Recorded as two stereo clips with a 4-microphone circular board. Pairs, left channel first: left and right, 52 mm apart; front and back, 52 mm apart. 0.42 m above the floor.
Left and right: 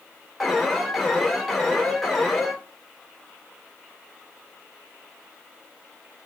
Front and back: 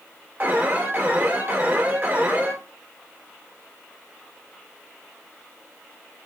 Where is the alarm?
Straight behind, 2.5 m.